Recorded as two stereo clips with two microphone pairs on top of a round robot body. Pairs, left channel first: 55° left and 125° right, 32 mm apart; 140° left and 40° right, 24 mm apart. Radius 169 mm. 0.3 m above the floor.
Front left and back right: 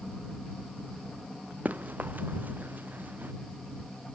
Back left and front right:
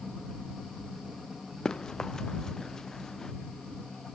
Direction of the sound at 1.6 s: 160° right.